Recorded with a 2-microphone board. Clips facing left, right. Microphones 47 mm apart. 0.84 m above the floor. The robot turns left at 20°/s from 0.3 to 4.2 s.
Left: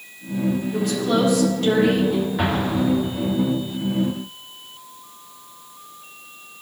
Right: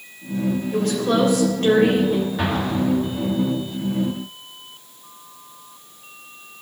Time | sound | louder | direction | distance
0.7 | a woman speaking | right 3 dB | 120° right | 3.5 m
2.4 | an explosion | left 1 dB | 10° left (ahead or behind) | 1.8 m